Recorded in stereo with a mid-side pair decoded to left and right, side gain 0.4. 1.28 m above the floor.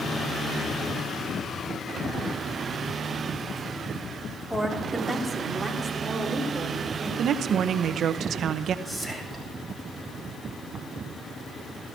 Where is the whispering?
Straight ahead, 8 m.